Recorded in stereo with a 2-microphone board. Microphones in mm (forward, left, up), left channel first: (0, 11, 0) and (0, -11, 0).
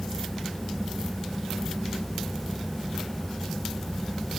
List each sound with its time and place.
Only background noise.